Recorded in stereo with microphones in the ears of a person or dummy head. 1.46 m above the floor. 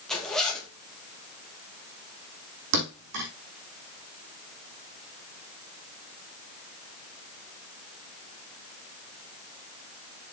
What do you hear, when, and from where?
0.1 s a zipper: 5° left (ahead or behind), 2 m
2.7 s a thud: 65° right (ahead or behind), 5 m